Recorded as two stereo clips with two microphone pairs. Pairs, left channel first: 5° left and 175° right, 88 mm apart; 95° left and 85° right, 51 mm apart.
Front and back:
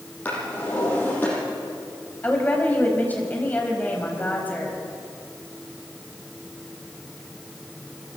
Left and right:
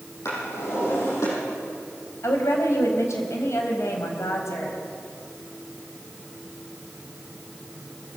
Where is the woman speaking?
75° left, 4 m.